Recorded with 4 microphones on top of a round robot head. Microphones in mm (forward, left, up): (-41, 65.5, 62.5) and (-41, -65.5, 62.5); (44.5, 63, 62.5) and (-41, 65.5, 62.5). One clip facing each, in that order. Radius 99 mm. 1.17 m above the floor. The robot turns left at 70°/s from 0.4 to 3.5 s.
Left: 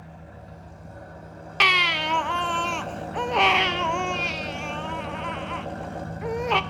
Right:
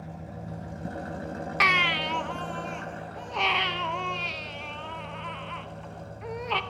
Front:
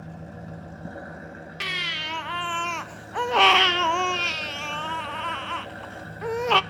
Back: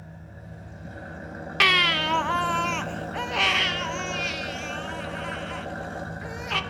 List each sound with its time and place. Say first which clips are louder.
0.0 s an engine running: right 4 dB, front 6 dB; 30° right, 1.8 m; by 6.7 s 110° left, 1.8 m
1.6 s a baby crying: left 3 dB, back 10 dB; 165° left, 0.5 m; by 6.6 s 30° left, 0.5 m